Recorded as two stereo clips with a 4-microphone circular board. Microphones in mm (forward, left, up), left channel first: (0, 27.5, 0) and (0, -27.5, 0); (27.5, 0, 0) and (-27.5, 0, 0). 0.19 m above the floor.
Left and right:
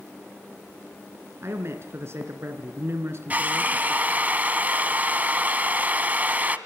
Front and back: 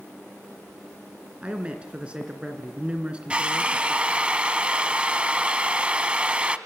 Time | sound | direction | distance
1.4 | a man speaking | 115° right | 2.5 m
3.3 | a drill | 125° right | 1.2 m